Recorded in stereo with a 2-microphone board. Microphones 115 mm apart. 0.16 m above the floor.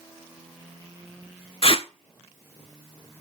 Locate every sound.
1.6 s tape being pulled: 50° left (ahead or behind), 0.6 m